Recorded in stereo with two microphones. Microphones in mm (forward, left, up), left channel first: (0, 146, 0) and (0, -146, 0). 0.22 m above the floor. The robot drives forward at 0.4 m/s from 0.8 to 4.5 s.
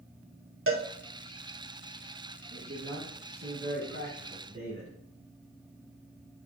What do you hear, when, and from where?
0.7 s a cowbell: 50° right (ahead or behind), 0.8 m
2.5 s a man speaking: 30° right (ahead or behind), 2.5 m; by 4.9 s 25° right (ahead or behind), 3 m